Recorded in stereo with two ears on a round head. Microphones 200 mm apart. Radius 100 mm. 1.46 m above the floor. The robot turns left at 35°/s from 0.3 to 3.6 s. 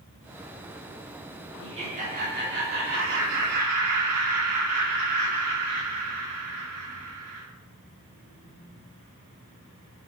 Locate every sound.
1.6 s laughter: 20° right, 3 m; by 7.5 s 95° right, 3 m